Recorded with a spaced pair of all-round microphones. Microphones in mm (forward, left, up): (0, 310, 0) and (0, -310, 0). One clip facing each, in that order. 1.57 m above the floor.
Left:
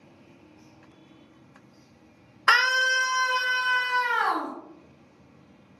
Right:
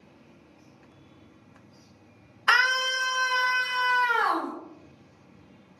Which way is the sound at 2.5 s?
70° left (ahead or behind).